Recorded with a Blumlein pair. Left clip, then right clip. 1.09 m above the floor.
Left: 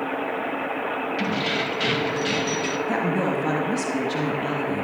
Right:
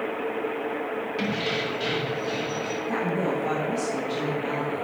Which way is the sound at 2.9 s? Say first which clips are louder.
Left 1 dB; 20° left.